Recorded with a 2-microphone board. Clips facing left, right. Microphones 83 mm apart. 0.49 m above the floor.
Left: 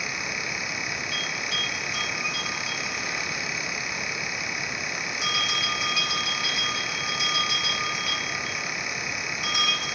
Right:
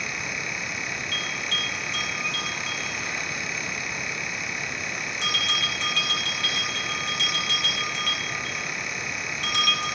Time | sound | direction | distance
1.1 | a bell | 10° left (ahead or behind) | 7 m